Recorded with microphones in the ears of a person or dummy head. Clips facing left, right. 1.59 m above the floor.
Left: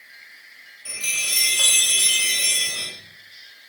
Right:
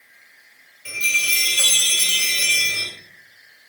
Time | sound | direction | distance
0.8 | a chime | 35° right (ahead or behind) | 2.5 m